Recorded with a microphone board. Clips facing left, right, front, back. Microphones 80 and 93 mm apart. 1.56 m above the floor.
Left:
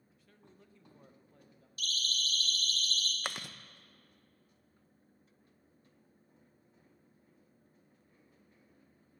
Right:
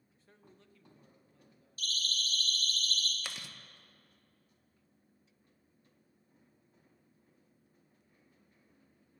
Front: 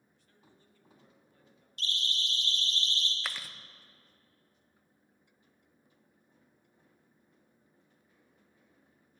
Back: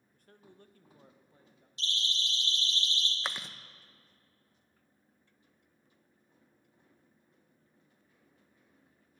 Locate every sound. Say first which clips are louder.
0.1 s a man speaking: even, back 8 dB; 140° right, 0.9 m; by 1.7 s 105° left, 1.6 m
1.8 s a siren: even, even; 35° right, 4.5 m; by 3.1 s 45° right, 2.5 m
3.2 s chewing: left 6 dB, back 2 dB; 115° left, 0.5 m